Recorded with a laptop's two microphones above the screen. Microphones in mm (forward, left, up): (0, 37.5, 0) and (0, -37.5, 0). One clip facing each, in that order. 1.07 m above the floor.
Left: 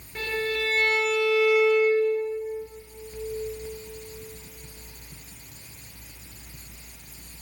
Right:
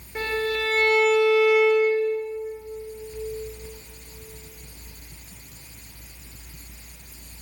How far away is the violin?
About 1.6 m.